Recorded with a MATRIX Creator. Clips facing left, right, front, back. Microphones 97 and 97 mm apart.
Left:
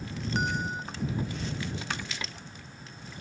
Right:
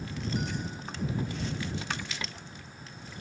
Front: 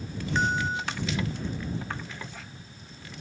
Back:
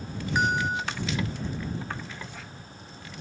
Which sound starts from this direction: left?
A bell, at 0.3 s.